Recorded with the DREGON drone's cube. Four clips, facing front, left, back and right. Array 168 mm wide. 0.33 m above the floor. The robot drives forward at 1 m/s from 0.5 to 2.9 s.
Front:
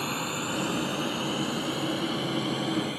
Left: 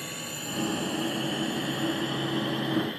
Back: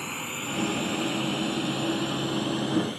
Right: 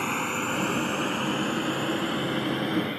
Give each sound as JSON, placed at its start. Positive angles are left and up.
{"t": 0.0, "sound": "a drone", "azimuth_deg": -80}